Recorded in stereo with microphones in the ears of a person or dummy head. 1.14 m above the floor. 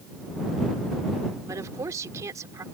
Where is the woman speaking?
20° right (ahead or behind).